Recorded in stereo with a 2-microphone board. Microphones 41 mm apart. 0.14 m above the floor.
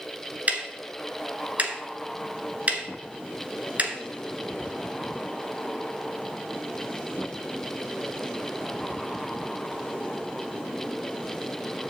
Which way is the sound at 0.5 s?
40° right (ahead or behind).